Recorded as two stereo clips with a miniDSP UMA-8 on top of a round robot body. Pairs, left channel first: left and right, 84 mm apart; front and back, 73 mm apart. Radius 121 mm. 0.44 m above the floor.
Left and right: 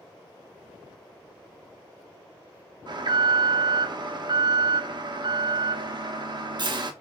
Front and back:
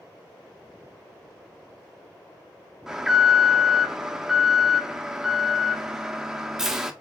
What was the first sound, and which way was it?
An alarm, 95° right.